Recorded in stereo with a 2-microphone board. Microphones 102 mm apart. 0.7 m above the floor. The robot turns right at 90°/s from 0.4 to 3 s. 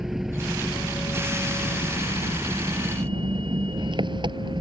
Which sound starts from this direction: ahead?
An engine running, at 0.0 s.